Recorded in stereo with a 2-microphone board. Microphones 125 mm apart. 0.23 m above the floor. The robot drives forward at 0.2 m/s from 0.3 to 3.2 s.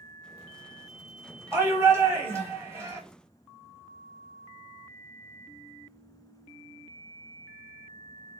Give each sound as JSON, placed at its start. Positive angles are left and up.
{"t": 1.5, "sound": "a shout", "side_deg": -25, "distance_m": 1.0}